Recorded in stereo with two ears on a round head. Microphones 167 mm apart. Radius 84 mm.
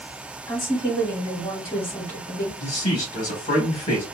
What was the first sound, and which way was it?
A woman speaking, 20° left (ahead or behind).